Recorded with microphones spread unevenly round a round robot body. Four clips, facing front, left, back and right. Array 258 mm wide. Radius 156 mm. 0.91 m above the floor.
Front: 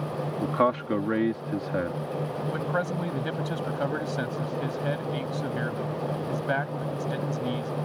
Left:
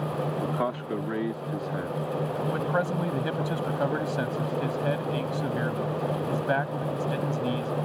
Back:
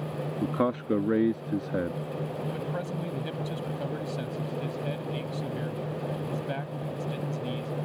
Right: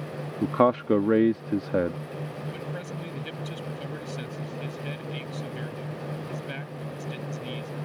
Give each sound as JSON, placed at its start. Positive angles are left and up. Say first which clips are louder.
{"t": 0.4, "sound": "a man speaking", "louder": "right 7 dB, front 3 dB", "azimuth_deg": -115}
{"t": 2.5, "sound": "a man speaking", "louder": "left 9 dB, front 5 dB", "azimuth_deg": 55}